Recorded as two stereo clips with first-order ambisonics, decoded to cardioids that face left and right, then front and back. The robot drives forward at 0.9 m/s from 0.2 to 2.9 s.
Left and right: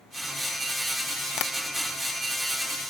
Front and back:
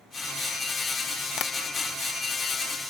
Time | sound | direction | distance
1.4 | tapping | 50° left | 0.8 m